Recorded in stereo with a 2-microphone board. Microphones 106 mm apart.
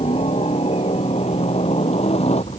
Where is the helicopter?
65° left (ahead or behind); by 2.6 s 75° left (ahead or behind).